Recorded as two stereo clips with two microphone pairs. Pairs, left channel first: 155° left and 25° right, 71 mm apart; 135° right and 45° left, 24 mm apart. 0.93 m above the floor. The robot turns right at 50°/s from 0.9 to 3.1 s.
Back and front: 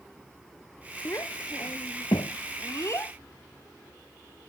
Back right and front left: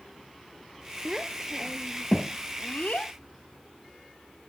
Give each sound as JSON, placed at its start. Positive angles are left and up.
{"t": 1.1, "sound": "a child speaking", "azimuth_deg": 105}